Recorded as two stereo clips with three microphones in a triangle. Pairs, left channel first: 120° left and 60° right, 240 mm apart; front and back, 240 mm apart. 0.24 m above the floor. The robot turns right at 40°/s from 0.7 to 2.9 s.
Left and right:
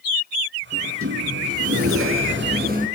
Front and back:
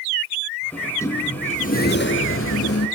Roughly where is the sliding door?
Right.